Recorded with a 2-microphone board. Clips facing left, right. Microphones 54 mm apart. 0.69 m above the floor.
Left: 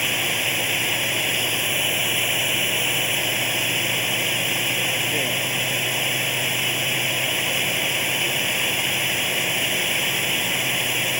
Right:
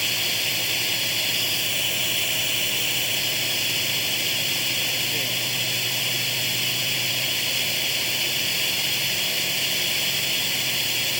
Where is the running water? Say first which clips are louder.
Left 3 dB; 25° left (ahead or behind).